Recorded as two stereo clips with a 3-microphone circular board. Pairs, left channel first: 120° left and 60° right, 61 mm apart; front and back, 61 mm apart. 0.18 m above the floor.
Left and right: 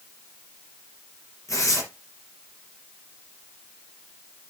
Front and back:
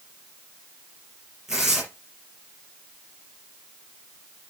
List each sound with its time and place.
1.5 s tearing paper: 95° left, 5 m